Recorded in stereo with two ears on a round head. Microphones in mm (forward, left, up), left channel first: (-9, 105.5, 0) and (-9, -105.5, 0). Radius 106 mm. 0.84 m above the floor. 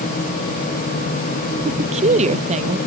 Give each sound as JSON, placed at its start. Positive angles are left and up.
{"t": 1.6, "sound": "a woman speaking", "side_deg": -30}